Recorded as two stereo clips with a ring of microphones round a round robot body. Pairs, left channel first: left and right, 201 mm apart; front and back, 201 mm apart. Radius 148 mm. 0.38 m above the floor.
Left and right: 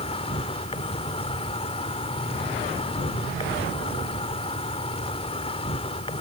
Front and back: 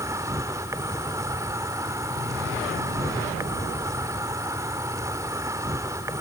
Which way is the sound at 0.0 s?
120° left.